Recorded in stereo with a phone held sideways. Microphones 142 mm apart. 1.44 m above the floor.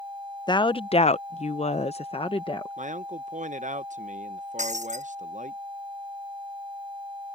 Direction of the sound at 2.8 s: 60° right (ahead or behind).